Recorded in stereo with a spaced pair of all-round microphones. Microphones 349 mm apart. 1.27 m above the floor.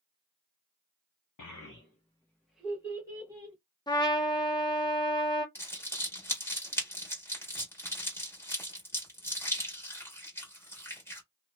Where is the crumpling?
5° left (ahead or behind), 1.5 m.